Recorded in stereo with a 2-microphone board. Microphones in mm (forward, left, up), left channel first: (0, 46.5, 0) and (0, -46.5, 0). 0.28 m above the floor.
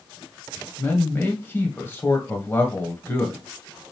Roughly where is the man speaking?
Left.